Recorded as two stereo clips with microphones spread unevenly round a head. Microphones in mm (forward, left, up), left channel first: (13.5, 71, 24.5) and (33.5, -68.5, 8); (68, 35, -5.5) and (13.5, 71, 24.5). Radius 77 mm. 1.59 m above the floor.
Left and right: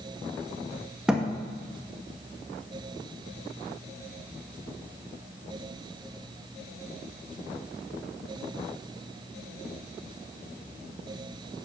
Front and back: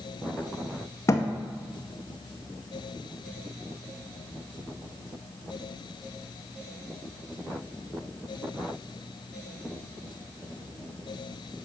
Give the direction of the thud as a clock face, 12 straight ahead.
12 o'clock.